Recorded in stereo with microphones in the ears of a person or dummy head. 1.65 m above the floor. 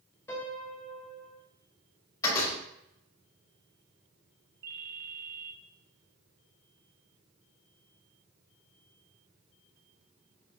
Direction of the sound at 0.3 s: 10° left (ahead or behind).